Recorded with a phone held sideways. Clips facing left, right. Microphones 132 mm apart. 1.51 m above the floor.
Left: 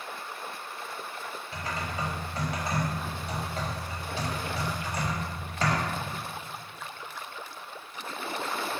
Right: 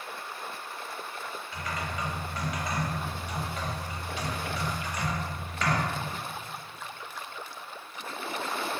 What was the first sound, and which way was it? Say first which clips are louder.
Typing on a keyboard: left 1 dB; 30° left (ahead or behind).